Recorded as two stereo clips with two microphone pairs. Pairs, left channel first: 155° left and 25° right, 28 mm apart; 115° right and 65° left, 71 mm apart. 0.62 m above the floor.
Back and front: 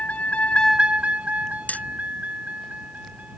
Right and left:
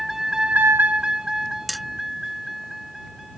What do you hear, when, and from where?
0.0 s a vehicle: 155° left; by 3.4 s 20° right
1.7 s hammering: 155° left